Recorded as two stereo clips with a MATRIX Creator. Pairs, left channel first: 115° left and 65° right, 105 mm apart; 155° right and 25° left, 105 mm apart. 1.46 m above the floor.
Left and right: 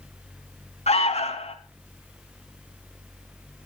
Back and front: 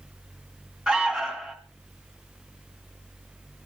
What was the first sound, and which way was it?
An alarm, 105° left.